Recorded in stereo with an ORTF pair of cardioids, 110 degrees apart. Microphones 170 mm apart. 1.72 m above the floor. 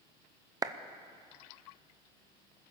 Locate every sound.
0.6 s a clap: 25° right, 0.8 m